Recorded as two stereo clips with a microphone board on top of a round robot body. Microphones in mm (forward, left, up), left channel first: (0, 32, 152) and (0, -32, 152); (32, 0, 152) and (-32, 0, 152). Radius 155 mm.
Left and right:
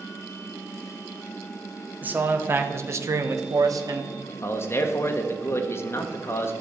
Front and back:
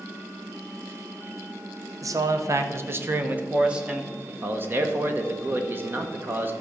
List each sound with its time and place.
2.0 s a man speaking: 155° right, 1.5 m; by 4.1 s 95° right, 1.4 m
4.3 s a man speaking: 130° left, 1.5 m